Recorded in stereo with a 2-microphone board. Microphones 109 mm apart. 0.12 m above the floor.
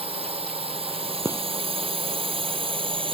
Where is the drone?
65° right (ahead or behind); by 3.1 s 55° right (ahead or behind).